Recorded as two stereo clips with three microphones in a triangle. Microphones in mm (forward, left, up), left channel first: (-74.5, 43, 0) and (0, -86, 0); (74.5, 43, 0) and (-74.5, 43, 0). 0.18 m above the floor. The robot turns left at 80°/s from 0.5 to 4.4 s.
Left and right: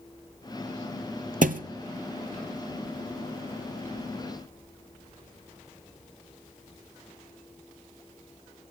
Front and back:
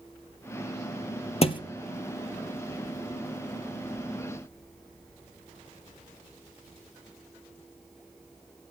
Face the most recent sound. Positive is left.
turn(degrees=80)